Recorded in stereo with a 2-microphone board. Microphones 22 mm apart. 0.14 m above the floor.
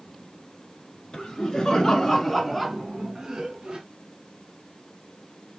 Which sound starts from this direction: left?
Laughter, at 1.1 s.